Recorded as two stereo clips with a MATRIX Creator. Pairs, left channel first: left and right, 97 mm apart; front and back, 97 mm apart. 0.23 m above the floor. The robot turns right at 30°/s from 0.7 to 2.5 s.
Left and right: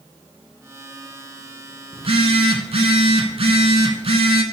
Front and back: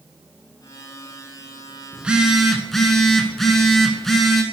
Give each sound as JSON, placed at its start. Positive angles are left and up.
{"t": 1.9, "sound": "a phone buzzing", "azimuth_deg": -105, "distance_m": 0.7}